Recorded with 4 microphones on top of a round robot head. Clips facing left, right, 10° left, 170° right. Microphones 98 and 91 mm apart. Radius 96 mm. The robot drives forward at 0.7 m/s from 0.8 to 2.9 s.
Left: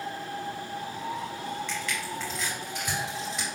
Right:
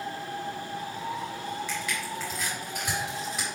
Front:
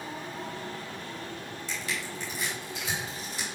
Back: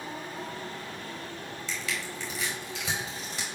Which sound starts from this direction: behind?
Crushing, at 1.7 s.